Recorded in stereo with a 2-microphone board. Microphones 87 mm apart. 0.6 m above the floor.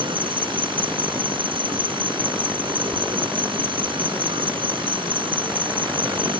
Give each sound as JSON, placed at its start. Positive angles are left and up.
{"t": 0.0, "sound": "an insect", "side_deg": -75}